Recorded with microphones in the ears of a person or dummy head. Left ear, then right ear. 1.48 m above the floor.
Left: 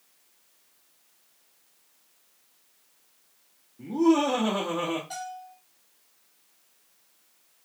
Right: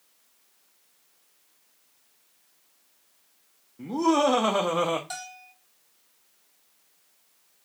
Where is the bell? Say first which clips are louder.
Left 2 dB; 45° right (ahead or behind), 2 m.